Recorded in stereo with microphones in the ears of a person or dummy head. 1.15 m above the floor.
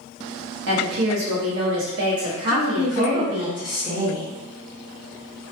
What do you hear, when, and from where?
0.7 s a woman speaking: 70° right (ahead or behind), 0.9 m
2.5 s a woman speaking: centre (ahead or behind), 1.0 m